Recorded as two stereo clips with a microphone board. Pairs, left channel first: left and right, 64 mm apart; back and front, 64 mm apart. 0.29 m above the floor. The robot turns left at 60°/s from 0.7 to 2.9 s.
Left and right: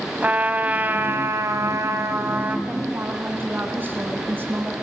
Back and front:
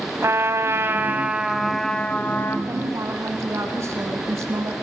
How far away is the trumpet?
About 1.7 m.